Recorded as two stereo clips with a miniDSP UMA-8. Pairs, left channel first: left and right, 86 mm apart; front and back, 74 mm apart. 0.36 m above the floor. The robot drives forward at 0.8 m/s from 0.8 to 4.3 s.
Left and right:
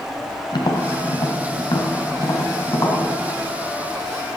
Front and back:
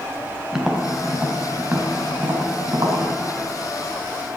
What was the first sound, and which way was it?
Tapping, 95° left.